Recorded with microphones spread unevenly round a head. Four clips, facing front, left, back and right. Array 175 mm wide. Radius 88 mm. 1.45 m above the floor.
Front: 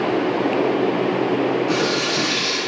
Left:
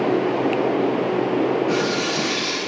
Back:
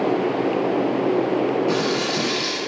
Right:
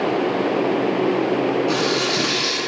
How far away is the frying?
About 3 m.